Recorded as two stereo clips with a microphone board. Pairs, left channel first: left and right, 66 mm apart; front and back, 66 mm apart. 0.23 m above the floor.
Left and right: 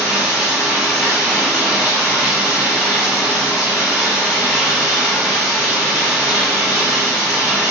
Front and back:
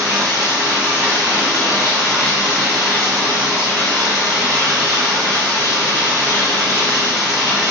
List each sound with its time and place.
0.0 s running water: 165° right, 1.5 m